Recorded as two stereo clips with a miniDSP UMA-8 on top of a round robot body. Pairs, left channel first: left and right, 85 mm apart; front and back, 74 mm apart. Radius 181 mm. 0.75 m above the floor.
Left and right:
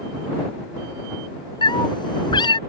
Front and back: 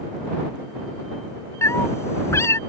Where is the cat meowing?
55° left.